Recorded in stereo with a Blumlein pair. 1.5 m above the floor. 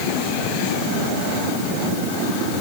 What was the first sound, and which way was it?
Only background noise.